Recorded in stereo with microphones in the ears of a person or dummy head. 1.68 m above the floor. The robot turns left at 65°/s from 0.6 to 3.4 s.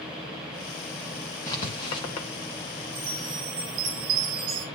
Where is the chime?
20° right, 4 m; by 4.7 s 50° right, 4 m.